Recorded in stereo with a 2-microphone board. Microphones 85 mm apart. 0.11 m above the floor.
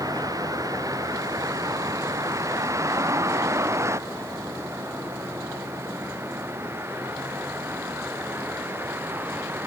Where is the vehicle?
50° right (ahead or behind); by 9.7 s 25° right (ahead or behind).